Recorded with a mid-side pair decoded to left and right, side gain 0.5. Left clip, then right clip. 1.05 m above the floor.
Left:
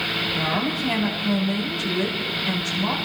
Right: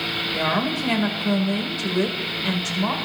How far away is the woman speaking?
About 3.5 m.